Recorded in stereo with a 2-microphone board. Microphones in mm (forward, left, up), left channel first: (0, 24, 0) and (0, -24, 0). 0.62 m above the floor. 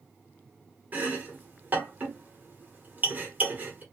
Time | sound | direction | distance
0.9 | chopping | 35° right (ahead or behind) | 1.1 m